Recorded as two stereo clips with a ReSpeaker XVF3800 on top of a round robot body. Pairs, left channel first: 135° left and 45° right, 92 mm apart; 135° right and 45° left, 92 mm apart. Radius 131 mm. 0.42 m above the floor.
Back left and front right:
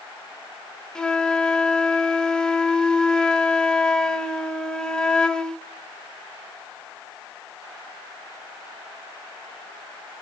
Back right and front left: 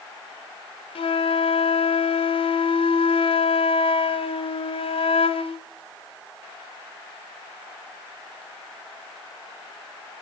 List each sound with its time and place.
0.9 s a flute: 140° right, 1.4 m